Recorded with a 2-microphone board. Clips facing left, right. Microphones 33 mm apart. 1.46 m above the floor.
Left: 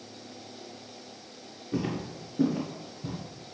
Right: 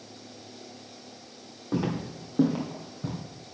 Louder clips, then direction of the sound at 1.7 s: Right 2 dB; 60° right (ahead or behind).